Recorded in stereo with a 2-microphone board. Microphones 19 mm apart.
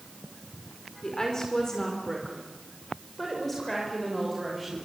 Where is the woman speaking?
35° left (ahead or behind), 4.5 m; by 4.8 s 5° left (ahead or behind), 6.5 m.